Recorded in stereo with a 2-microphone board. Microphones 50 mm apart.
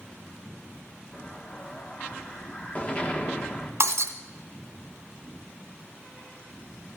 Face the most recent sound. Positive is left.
turn(degrees=-80)